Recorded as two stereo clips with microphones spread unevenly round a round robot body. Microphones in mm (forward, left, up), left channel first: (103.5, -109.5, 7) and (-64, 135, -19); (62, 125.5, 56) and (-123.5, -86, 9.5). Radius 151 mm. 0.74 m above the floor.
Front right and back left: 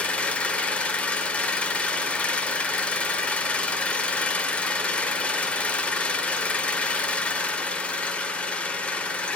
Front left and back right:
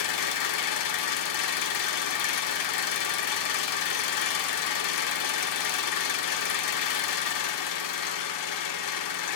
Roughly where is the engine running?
Ahead left.